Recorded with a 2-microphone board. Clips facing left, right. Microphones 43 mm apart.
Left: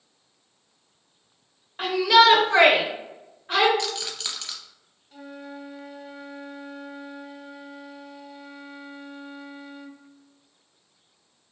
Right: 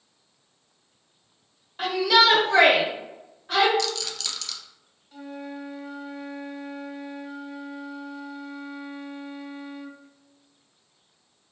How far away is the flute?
About 0.6 m.